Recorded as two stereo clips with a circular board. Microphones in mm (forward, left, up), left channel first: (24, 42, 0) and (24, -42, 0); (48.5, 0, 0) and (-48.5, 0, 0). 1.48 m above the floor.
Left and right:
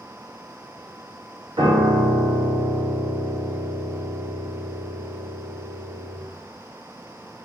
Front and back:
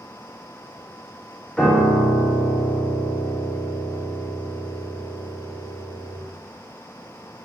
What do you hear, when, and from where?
1.6 s a piano: 80° right, 0.8 m